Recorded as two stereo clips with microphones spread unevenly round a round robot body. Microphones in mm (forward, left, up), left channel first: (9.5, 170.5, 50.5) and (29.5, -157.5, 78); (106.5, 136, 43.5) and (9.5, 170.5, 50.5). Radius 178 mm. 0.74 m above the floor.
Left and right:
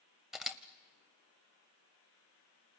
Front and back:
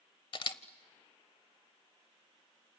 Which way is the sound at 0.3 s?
5° right.